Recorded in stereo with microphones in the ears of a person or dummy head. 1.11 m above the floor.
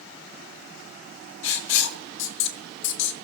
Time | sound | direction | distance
1.4 | writing | 65° left (ahead or behind) | 1.9 m